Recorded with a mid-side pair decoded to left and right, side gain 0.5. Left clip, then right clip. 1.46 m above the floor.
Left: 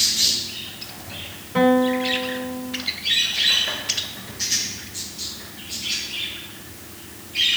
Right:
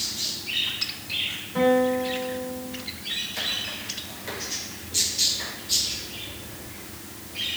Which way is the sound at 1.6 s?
50° left.